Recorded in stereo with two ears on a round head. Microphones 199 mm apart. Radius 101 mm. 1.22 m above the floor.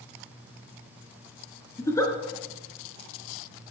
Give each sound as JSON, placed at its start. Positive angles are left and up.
{"t": 1.8, "sound": "a giggle", "side_deg": 15, "distance_m": 3.0}